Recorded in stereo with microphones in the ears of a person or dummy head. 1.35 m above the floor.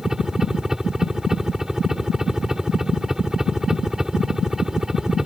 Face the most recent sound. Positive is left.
turn(degrees=0)  # may be behind; listen again after turning